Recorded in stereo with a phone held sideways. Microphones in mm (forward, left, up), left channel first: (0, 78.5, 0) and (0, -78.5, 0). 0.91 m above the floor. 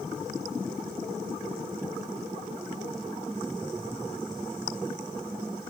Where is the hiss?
No hiss in this recording.